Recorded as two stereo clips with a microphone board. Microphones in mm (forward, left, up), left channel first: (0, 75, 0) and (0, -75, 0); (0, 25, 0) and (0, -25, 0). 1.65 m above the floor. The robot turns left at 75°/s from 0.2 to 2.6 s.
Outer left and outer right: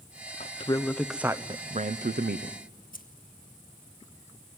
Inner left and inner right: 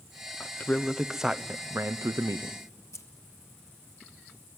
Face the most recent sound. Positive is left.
turn(degrees=70)  # may be behind; listen again after turning